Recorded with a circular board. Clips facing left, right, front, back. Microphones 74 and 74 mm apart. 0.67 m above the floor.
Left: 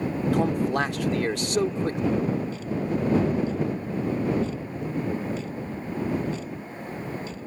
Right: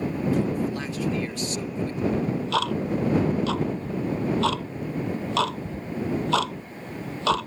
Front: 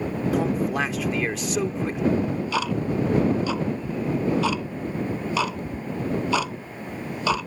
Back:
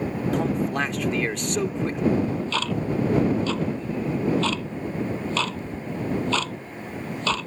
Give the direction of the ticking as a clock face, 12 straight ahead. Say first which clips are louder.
Right 2 dB, even; 3 o'clock.